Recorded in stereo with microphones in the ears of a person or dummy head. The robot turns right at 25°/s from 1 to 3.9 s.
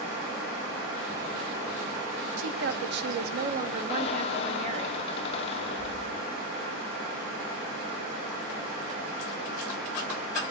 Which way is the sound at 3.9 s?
30° left (ahead or behind).